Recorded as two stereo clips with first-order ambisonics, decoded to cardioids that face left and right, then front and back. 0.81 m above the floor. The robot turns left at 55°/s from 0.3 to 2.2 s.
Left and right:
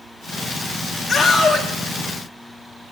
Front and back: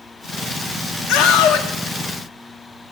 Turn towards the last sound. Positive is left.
turn(degrees=-45)